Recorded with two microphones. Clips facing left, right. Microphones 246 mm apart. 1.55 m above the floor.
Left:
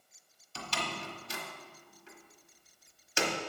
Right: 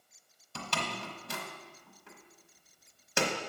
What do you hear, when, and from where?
0.6 s a door slam: 60° right (ahead or behind), 1.1 m